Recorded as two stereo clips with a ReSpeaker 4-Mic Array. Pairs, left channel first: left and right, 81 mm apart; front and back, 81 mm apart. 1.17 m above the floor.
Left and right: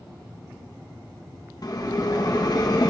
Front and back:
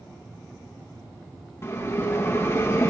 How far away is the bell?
About 1.6 m.